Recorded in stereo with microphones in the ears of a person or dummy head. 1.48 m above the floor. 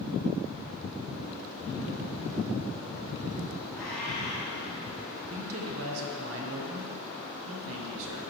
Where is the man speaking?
65° right (ahead or behind), 1.1 m.